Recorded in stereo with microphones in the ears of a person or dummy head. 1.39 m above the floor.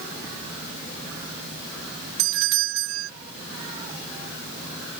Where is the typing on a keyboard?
No typing on a keyboard in this recording.